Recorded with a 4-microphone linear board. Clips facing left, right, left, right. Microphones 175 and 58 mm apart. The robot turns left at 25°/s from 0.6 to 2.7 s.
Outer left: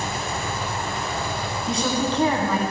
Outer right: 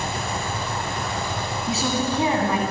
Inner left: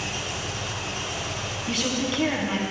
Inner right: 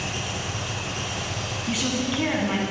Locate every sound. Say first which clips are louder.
0.0 s an engine running: even, inner right 1 dB; 35° right, 4 m; by 2.7 s 90° right, 4 m
1.7 s a woman speaking: outer left 1 dB, inner right 1 dB; 5° right (ahead or behind), 1.6 m; by 2.6 s 20° right (ahead or behind), 1.6 m